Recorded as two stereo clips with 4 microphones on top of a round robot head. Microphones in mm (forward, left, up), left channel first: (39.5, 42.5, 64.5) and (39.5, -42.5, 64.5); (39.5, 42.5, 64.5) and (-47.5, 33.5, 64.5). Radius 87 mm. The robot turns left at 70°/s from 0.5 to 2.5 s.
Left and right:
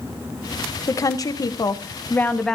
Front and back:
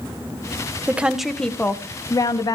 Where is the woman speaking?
125° left, 1.0 m; by 2.6 s 10° left, 1.0 m.